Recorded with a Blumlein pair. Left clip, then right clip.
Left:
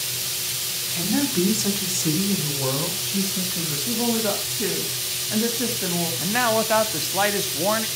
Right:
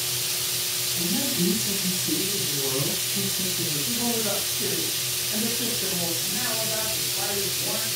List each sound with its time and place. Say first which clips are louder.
0.9 s a woman speaking: left 6 dB; 25° left, 3 m; by 3.8 s 45° left, 6.5 m
3.9 s a woman speaking: left 6 dB; 20° left, 2.5 m
6.2 s a man speaking: left 6 dB; 40° left, 1.7 m